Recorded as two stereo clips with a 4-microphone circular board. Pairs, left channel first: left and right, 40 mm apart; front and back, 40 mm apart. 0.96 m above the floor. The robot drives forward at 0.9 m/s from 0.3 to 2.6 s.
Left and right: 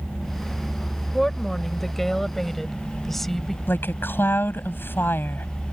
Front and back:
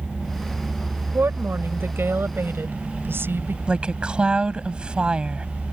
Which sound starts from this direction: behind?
A woman speaking, at 1.1 s.